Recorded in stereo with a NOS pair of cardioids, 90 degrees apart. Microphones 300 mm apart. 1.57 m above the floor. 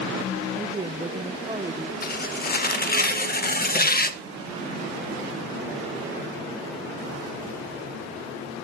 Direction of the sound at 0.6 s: 15° right.